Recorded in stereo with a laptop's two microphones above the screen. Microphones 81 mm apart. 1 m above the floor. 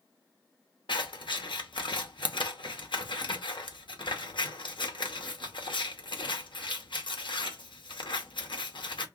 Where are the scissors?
80° left, 0.7 m.